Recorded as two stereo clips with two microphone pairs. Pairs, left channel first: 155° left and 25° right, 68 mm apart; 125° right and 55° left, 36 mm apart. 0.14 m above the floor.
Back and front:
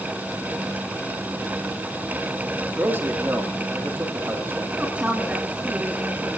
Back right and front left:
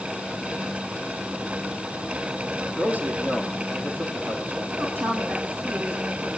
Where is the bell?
No bell in this recording.